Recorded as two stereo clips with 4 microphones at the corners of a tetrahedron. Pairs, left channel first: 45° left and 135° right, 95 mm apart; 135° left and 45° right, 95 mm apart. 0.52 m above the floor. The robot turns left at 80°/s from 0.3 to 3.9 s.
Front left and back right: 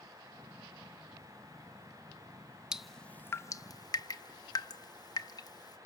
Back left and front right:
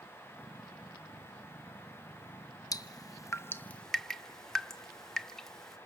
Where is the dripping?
150° left, 0.6 m; by 5.8 s 55° left, 0.6 m.